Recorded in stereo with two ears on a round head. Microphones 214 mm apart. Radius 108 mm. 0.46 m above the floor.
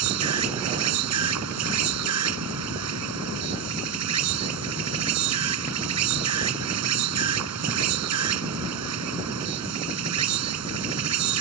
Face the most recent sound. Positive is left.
turn(degrees=-75)  # may be behind; listen again after turning